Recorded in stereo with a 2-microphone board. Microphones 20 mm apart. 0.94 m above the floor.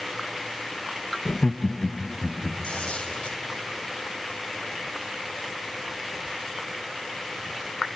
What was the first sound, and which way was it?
Laughter, 40° left (ahead or behind).